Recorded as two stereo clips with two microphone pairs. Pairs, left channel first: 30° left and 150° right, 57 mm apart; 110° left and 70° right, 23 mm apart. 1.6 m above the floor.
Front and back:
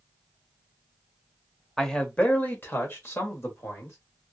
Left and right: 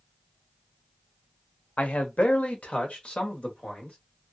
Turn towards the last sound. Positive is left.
turn(degrees=70)